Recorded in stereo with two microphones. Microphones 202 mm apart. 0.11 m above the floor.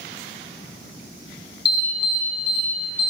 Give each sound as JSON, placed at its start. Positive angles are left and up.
{"t": 1.6, "sound": "an alarm", "side_deg": -30, "distance_m": 1.6}